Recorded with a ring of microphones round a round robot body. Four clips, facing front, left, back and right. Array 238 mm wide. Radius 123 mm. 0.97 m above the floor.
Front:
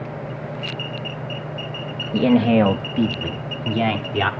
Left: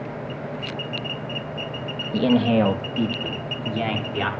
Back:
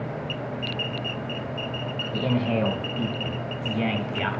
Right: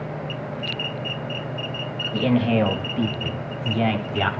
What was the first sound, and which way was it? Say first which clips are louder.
A man speaking: left 2 dB, front 10 dB; 20° left.